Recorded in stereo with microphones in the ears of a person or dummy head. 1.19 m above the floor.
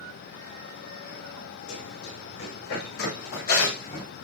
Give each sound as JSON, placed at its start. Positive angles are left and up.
{"t": 1.7, "sound": "running footsteps", "side_deg": 65, "distance_m": 8.0}